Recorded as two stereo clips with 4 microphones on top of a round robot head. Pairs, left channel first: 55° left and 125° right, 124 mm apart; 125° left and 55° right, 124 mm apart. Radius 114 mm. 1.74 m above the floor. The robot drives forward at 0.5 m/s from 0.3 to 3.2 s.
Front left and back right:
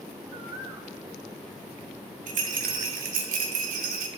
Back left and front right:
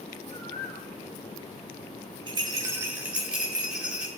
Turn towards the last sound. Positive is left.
turn(degrees=-140)